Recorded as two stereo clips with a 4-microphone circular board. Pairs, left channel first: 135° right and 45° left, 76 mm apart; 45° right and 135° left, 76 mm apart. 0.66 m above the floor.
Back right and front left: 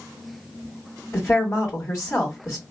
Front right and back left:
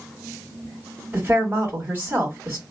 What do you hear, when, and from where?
1.1 s a woman speaking: 175° right, 1.2 m